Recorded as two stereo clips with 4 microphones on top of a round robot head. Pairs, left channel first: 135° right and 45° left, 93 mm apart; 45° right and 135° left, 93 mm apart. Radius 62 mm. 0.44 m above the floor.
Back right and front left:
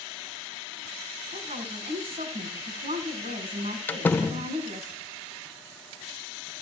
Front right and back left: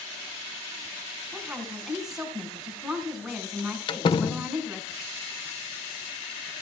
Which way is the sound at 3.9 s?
65° right.